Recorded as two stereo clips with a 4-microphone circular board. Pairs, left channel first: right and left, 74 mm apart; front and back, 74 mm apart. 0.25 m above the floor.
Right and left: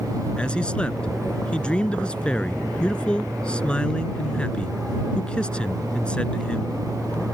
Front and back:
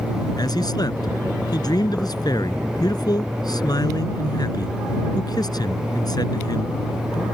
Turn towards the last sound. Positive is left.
turn(degrees=-15)